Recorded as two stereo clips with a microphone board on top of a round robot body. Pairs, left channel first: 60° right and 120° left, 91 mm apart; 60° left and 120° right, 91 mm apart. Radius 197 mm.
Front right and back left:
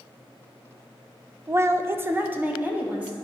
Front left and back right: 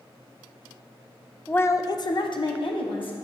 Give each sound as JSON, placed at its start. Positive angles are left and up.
{"t": 1.5, "sound": "a woman speaking", "azimuth_deg": 120, "distance_m": 0.5}